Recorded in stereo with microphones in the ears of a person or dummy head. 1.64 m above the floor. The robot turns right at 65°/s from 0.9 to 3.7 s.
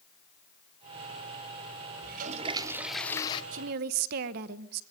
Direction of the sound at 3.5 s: 45° right (ahead or behind).